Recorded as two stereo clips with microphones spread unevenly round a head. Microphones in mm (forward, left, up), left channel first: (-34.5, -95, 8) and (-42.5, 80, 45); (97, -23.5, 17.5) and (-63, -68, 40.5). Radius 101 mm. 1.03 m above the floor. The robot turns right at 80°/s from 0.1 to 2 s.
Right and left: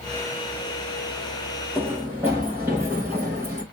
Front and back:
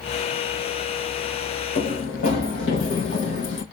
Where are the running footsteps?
5° right, 3 m; by 3.6 s 25° left, 2 m.